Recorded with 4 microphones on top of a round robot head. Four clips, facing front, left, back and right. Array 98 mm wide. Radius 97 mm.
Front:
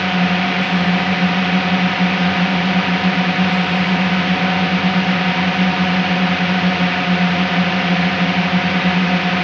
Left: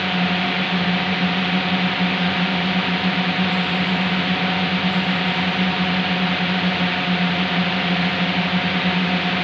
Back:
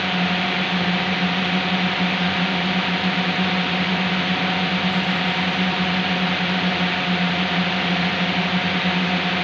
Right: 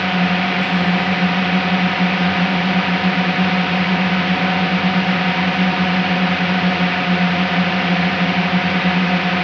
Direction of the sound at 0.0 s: 45° right.